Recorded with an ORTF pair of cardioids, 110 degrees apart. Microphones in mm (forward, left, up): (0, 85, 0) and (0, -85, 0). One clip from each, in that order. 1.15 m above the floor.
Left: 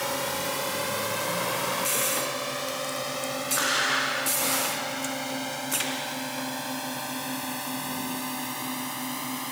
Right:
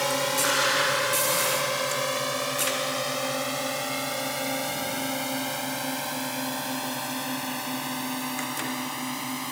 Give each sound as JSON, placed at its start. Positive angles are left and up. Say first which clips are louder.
{"t": 0.0, "sound": "a drone", "louder": "right 4 dB", "azimuth_deg": -30}